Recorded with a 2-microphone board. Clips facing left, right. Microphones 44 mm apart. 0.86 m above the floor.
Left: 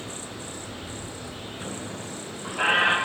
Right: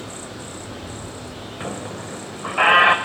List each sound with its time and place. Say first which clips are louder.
0.0 s running water: right 3 dB; 85° right, 6.5 m
1.6 s a squeak: right 7 dB; 85° right, 1.9 m